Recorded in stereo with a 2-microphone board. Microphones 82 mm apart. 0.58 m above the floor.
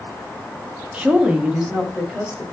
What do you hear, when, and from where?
0.9 s a woman speaking: 20° right (ahead or behind), 0.6 m; by 2.4 s 5° right (ahead or behind), 1.4 m